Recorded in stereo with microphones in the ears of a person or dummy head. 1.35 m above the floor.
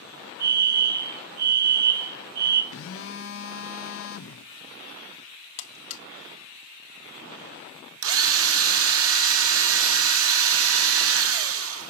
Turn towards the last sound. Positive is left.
turn(degrees=-70)  # may be behind; listen again after turning